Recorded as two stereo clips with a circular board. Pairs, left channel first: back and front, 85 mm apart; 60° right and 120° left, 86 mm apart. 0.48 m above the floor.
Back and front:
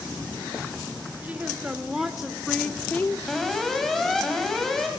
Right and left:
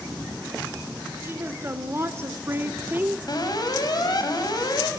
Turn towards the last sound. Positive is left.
turn(degrees=-90)